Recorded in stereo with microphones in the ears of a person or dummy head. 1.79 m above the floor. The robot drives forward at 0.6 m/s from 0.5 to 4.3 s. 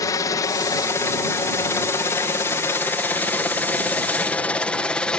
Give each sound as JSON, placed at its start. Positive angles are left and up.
{"t": 0.0, "sound": "a helicopter", "side_deg": 20}